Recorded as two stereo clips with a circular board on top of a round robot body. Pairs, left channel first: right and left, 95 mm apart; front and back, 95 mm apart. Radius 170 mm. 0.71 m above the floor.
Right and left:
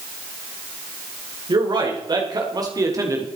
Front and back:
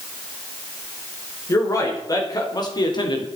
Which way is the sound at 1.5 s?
55° left.